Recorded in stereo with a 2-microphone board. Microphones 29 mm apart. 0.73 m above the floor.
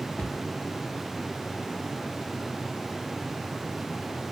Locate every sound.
0.2 s a cupboard door: 70° left (ahead or behind), 0.8 m